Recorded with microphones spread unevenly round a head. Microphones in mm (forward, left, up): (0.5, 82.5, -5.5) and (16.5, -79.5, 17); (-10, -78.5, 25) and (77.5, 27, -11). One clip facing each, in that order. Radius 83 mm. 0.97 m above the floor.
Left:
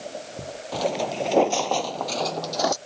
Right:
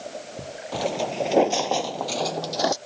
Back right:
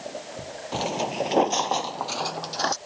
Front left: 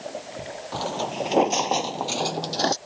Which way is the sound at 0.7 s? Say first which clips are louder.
Even, back right 1 dB; 160° right.